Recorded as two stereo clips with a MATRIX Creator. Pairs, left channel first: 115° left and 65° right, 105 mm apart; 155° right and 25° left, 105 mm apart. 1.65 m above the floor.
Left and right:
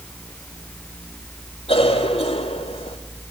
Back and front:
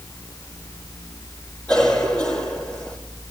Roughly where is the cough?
Behind left.